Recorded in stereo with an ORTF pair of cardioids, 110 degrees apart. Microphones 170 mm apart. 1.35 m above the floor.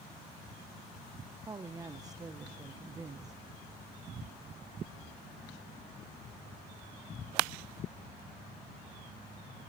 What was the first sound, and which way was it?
A woman speaking, 20° right.